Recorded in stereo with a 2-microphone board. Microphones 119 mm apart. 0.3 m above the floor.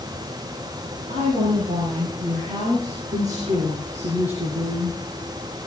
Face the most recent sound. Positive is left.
turn(degrees=-45)  # may be behind; listen again after turning